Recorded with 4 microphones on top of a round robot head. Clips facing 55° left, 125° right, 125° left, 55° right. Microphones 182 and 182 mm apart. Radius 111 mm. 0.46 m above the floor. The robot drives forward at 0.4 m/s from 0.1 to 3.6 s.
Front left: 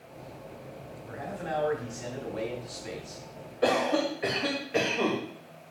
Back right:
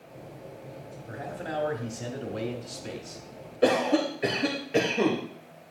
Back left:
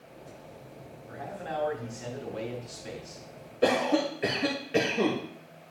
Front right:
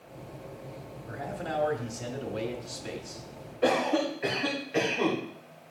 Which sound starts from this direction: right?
A man speaking, at 1.1 s.